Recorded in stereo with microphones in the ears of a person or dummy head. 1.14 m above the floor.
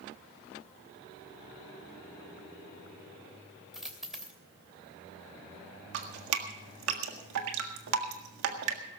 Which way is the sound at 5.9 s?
80° right.